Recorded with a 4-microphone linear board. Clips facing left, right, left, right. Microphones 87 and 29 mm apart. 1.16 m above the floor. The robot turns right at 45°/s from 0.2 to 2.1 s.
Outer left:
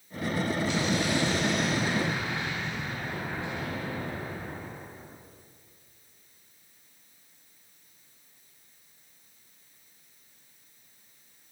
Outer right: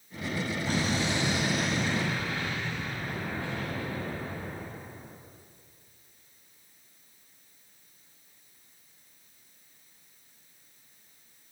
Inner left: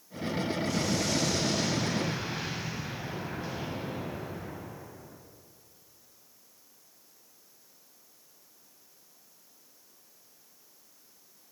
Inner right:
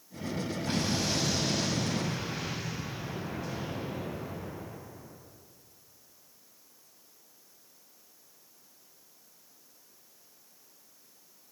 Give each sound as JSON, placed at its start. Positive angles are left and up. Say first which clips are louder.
{"t": 0.7, "sound": "an explosion", "louder": "outer left 2 dB, inner right 2 dB", "azimuth_deg": -45, "distance_m": 8.5}